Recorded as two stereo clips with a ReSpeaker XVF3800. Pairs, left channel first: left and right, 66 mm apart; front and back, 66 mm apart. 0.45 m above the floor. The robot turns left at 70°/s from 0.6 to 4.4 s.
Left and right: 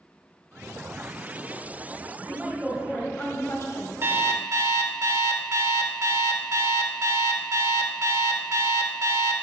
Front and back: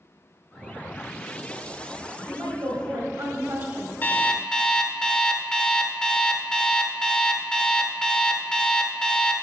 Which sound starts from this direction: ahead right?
An alarm clock, at 4.0 s.